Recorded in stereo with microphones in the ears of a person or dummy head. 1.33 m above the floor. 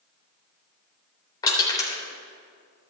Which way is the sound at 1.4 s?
25° left (ahead or behind).